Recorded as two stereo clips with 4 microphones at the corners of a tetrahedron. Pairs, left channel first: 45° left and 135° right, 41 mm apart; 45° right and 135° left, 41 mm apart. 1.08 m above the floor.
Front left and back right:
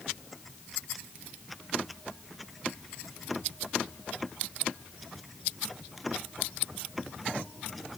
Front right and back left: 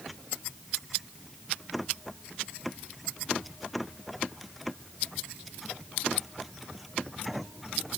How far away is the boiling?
No boiling in this recording.